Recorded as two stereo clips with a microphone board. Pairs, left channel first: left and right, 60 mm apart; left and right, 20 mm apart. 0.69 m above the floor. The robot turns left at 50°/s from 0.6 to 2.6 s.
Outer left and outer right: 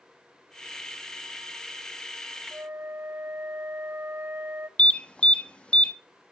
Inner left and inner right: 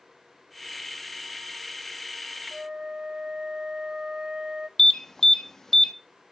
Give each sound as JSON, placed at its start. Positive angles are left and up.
{"t": 2.5, "sound": "a flute", "side_deg": -45, "distance_m": 0.6}
{"t": 4.8, "sound": "an alarm", "side_deg": 20, "distance_m": 0.8}